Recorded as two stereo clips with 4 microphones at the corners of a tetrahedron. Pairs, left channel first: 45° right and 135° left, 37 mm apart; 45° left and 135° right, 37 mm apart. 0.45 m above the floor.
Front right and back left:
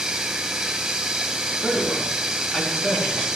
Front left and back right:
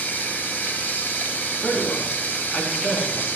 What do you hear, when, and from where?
0.0 s running water: 60° left, 1.5 m
1.6 s a man speaking: 20° left, 4.5 m